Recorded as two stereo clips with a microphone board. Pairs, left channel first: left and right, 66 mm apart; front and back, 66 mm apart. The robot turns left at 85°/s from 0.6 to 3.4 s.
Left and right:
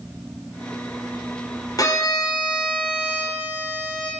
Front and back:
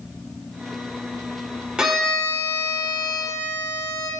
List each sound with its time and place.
1.8 s a violin: 105° left, 0.5 m; by 4.1 s 35° right, 0.5 m